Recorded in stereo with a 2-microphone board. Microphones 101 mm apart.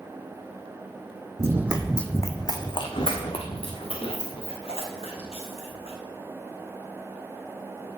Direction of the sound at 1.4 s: 30° right (ahead or behind).